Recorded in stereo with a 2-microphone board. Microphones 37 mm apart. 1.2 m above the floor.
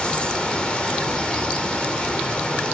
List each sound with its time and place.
0.0 s running water: 25° left (ahead or behind), 3 m